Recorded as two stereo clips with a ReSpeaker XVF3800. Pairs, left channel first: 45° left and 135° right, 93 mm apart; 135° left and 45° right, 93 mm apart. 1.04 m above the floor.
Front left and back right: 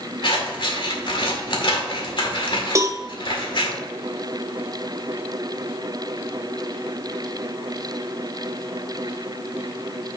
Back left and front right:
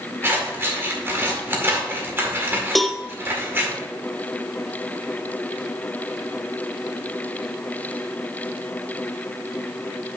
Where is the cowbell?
135° right, 0.5 m.